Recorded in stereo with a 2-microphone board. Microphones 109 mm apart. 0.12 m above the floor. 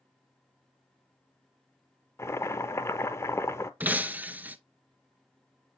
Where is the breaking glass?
15° right (ahead or behind), 0.5 m.